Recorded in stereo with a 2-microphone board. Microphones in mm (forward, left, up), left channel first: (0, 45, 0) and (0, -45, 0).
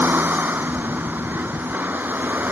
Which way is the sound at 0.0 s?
20° right (ahead or behind).